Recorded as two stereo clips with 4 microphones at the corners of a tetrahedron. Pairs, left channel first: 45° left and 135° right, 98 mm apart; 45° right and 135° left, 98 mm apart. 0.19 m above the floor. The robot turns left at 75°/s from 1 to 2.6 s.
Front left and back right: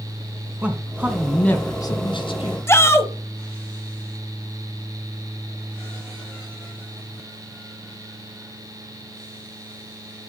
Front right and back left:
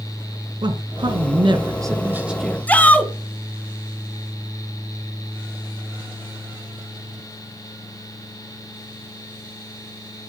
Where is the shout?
10° left, 1.6 m.